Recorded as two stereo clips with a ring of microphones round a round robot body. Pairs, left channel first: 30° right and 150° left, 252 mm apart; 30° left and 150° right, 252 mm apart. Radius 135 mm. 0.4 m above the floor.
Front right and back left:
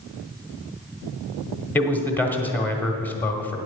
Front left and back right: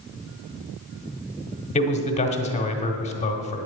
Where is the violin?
I don't hear a violin.